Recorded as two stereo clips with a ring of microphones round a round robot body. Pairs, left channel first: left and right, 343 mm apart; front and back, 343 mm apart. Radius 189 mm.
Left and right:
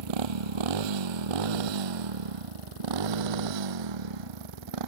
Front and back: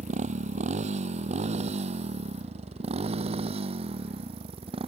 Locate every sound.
0.0 s a motorcycle: 105° right